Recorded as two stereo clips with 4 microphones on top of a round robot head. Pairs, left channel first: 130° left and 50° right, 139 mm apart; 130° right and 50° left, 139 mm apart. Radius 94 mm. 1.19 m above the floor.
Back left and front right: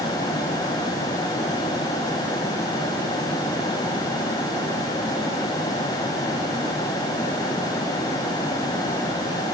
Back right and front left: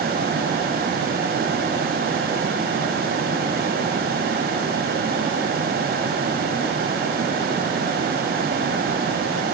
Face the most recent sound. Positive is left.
No sound to turn to.